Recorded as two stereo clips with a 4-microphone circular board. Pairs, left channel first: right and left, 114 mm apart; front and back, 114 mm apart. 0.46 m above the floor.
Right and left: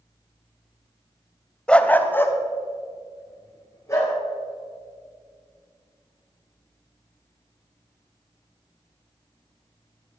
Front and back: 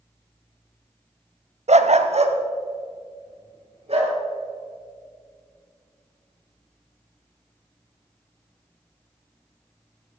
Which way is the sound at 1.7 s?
170° right.